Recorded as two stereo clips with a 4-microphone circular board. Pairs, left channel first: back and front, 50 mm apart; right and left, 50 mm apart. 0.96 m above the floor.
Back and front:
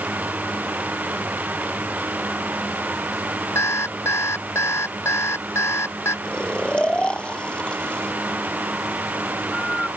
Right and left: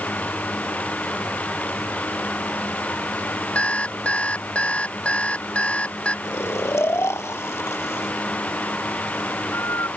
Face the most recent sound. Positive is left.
turn(degrees=-110)